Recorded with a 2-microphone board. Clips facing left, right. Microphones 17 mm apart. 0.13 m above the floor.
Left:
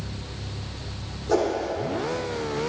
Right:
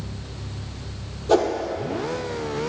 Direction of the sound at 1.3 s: 55° right (ahead or behind).